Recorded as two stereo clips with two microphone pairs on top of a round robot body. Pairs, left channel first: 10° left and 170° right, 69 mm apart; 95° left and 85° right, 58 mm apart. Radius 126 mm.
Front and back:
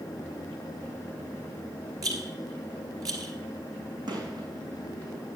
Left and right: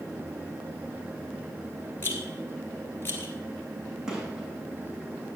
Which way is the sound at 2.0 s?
155° left.